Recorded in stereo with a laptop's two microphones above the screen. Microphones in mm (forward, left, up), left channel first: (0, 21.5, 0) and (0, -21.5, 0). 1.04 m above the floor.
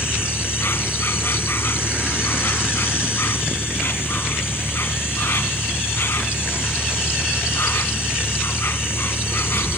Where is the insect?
60° left (ahead or behind).